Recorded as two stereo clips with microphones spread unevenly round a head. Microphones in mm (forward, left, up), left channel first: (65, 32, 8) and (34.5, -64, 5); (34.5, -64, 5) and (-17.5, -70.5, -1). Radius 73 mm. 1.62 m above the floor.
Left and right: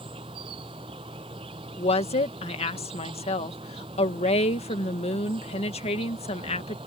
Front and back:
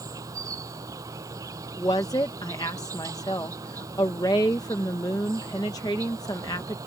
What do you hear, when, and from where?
0.0 s an insect: 165° right
1.8 s a woman speaking: 50° left